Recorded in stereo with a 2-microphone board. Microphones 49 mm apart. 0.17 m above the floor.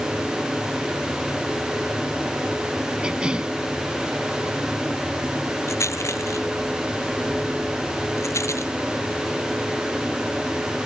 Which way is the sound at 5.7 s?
85° left.